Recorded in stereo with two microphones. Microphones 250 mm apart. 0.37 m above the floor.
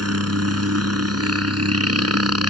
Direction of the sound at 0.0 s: 70° right (ahead or behind).